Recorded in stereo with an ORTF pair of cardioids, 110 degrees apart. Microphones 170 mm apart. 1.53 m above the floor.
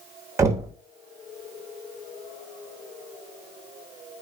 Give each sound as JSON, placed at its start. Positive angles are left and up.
{"t": 0.4, "sound": "knocking", "azimuth_deg": -20, "distance_m": 0.8}